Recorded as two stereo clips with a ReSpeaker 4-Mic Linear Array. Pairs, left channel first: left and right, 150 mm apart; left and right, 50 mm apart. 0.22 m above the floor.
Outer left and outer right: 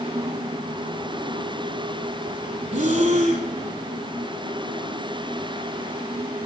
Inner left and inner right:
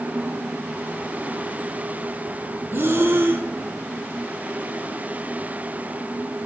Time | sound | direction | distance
2.7 | breathing | 50° right (ahead or behind) | 0.7 m